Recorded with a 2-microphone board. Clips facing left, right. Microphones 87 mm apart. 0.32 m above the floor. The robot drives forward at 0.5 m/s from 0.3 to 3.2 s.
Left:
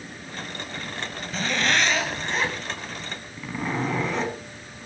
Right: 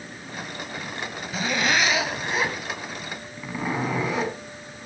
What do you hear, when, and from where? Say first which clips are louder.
1.3 s a zipper: right 1 dB; 10° right (ahead or behind), 1.7 m; by 4.4 s 5° right (ahead or behind), 2.5 m